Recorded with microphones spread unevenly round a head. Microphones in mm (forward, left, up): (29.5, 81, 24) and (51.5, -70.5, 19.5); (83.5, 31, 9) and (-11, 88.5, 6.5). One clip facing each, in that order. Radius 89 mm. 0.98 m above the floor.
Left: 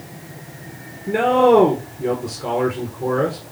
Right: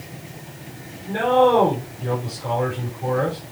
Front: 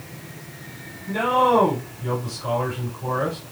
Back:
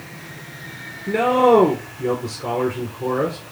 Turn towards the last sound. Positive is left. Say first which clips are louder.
# left 3 dB, back 4 dB
turn(degrees=140)